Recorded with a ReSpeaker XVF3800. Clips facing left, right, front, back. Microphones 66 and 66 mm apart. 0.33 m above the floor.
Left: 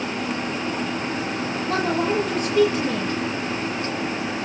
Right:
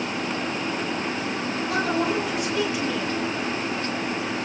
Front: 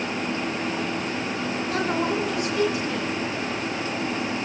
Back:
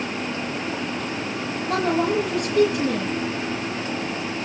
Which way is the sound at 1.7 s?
140° left.